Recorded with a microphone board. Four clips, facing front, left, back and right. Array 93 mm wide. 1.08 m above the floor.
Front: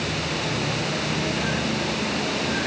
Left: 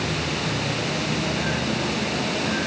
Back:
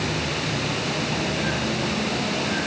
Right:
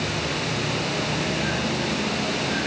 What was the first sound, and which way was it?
Only background noise.